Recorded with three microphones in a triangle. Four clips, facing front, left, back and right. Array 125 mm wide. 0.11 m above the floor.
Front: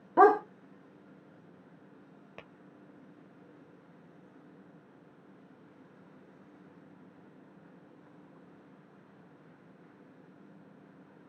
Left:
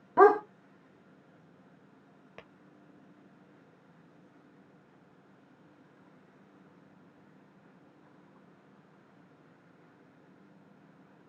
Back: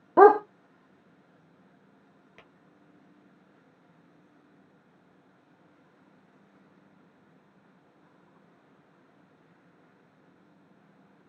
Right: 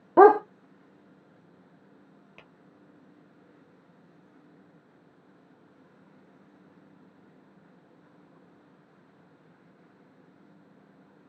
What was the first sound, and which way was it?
A dog barking, 120° right.